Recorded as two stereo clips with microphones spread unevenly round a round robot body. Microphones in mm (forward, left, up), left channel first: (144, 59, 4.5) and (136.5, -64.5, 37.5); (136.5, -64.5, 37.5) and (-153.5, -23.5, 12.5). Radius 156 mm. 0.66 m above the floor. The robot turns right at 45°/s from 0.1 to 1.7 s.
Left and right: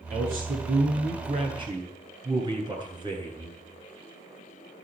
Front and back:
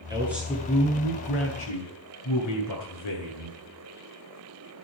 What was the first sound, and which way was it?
A man speaking, 110° right.